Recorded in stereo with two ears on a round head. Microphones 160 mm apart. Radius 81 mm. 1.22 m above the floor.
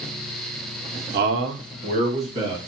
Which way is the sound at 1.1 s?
55° right (ahead or behind).